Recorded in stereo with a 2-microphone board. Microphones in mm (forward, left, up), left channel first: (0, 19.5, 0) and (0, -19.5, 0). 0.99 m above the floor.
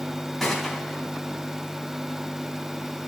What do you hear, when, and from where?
0.4 s a gunshot: 5° left (ahead or behind), 3 m